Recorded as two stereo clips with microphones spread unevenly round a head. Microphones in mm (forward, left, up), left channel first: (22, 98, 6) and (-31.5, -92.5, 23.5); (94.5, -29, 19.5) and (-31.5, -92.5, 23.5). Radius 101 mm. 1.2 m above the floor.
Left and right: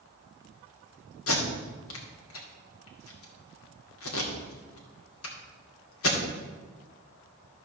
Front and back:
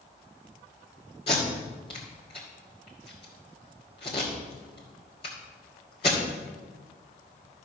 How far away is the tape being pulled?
About 2 m.